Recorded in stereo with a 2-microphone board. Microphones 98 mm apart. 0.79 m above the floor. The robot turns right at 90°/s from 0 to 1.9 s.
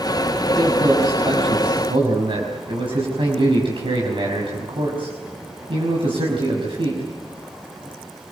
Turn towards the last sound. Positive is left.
turn(degrees=-60)